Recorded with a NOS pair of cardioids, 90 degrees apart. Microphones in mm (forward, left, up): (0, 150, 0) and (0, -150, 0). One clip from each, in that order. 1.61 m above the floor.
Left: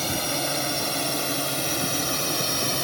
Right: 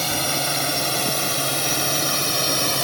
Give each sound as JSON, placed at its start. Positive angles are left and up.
{"t": 0.0, "sound": "a drone", "azimuth_deg": -30}